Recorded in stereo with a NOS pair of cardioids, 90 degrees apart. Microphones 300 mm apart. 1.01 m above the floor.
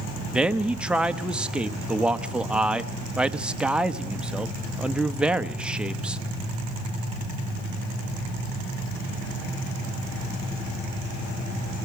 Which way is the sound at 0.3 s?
5° right.